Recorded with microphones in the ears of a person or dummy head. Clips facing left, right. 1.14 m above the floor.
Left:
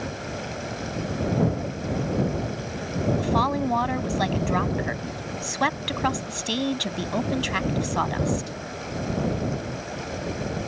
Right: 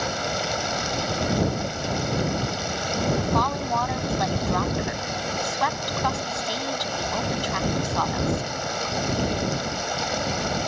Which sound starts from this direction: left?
A woman speaking, at 3.2 s.